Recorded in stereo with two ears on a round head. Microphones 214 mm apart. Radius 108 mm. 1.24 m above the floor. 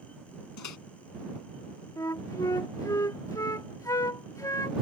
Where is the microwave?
85° left.